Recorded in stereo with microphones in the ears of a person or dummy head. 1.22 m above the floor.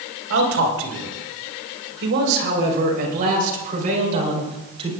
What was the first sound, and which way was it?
A man speaking, 85° right.